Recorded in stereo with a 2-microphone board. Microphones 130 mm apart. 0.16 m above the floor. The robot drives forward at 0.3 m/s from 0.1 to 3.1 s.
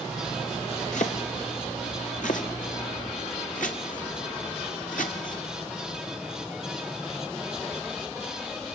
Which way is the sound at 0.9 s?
70° left (ahead or behind).